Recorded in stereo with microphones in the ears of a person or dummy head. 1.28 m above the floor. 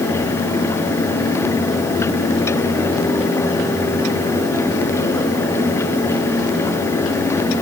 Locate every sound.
Only background noise.